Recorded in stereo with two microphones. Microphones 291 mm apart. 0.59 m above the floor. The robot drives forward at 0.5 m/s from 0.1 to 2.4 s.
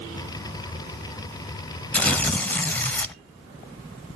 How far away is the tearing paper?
About 0.9 m.